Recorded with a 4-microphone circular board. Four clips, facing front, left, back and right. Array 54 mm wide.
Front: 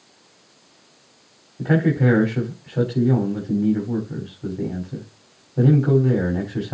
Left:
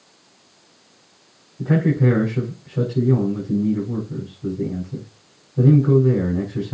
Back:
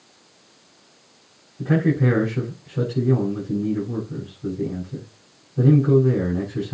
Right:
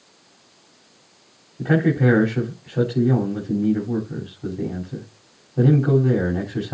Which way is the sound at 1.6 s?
40° right.